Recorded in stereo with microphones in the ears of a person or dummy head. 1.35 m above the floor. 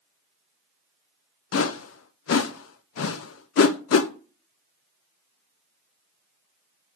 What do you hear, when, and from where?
1.5 s a whoosh: 70° left (ahead or behind), 0.6 m